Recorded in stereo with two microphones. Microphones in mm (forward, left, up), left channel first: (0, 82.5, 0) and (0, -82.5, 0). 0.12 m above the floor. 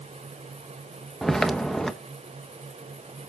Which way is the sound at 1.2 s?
5° left (ahead or behind).